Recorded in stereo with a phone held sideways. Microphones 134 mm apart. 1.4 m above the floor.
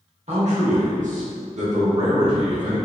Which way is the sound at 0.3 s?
55° right (ahead or behind).